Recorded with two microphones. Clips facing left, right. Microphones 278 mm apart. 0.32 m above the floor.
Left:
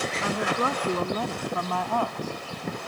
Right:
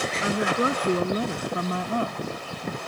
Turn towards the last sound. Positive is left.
turn(degrees=-25)  # may be behind; listen again after turning